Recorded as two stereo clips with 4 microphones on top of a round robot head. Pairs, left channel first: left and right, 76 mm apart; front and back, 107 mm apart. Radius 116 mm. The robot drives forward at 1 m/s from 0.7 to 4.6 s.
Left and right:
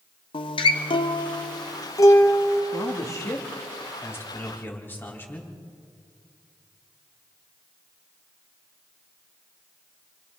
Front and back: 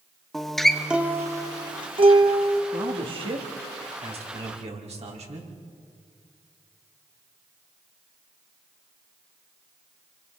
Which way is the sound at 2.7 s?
130° left.